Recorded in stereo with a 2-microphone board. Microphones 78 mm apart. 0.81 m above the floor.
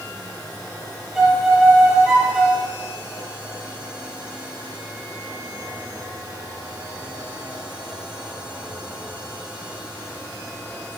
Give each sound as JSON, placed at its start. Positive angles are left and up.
{"t": 1.1, "sound": "a violin", "side_deg": -5, "distance_m": 3.0}